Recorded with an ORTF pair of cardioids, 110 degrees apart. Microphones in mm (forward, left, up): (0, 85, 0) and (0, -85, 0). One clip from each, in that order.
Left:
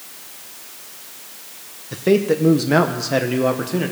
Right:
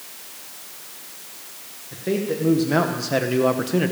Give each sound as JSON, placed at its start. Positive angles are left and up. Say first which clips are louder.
{"t": 1.9, "sound": "a man speaking", "louder": "left 8 dB", "azimuth_deg": 45, "distance_m": 1.1}